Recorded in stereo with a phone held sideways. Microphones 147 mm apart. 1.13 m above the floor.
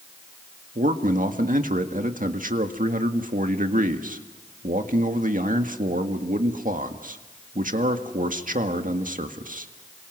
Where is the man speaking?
65° right (ahead or behind), 1.8 m.